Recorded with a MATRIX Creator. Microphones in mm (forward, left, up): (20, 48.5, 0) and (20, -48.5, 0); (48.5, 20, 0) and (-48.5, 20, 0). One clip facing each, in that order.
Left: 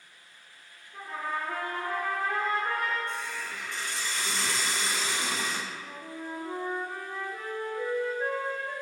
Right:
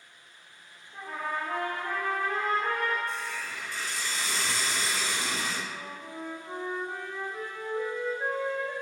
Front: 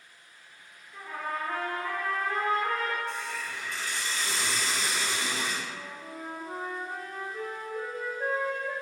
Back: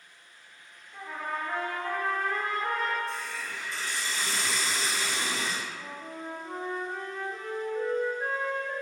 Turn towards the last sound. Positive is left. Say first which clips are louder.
# right 1 dB, back 1 dB
turn(degrees=-160)